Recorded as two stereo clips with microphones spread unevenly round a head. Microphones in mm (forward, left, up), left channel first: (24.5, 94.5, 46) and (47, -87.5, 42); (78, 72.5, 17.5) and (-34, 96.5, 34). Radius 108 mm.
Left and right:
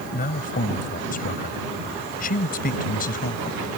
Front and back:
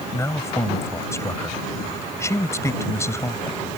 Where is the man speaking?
55° left.